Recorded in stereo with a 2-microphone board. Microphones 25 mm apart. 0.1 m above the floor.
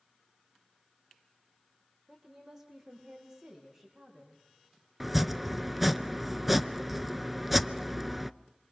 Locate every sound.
2.1 s a woman speaking: 15° right (ahead or behind), 4.5 m
5.0 s chopping: 5° right (ahead or behind), 0.7 m